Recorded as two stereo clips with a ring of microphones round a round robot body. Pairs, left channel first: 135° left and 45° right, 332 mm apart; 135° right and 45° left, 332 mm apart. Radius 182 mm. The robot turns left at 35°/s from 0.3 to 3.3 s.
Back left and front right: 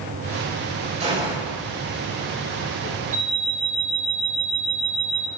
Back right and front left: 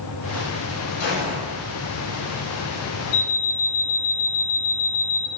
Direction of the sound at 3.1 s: 100° right.